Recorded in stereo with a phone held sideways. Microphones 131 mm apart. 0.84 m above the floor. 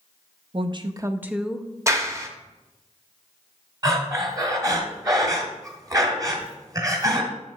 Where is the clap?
25° right (ahead or behind), 0.9 m.